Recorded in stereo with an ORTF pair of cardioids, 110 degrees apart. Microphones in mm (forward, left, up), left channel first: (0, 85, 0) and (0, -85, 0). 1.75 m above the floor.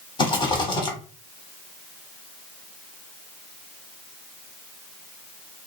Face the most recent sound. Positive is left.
turn(degrees=25)